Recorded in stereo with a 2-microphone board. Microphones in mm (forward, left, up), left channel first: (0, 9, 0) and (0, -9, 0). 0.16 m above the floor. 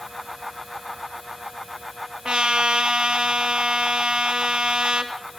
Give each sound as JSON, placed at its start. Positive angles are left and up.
{"t": 2.2, "sound": "a trumpet", "side_deg": -75, "distance_m": 2.0}